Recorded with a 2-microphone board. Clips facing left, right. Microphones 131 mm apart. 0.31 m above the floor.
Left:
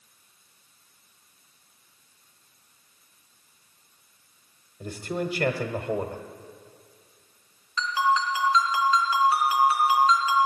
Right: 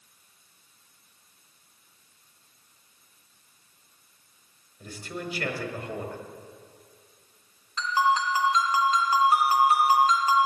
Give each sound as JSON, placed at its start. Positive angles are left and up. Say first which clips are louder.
{"t": 4.8, "sound": "a man speaking", "louder": "left 6 dB", "side_deg": 30, "distance_m": 1.2}
{"t": 7.8, "sound": "a ringtone", "louder": "even", "side_deg": -45, "distance_m": 2.5}